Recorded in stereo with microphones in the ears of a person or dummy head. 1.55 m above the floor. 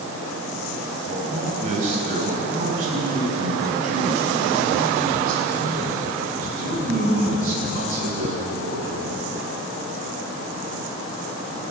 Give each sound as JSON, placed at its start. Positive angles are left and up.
{"t": 1.1, "sound": "a man speaking", "side_deg": -40, "distance_m": 8.0}